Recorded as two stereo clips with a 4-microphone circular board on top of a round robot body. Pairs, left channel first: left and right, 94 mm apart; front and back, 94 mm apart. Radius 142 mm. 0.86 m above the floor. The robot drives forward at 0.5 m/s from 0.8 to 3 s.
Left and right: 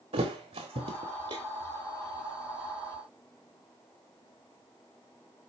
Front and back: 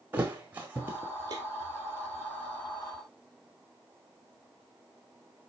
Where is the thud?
105° right, 0.7 m; by 1.4 s 130° right, 0.8 m.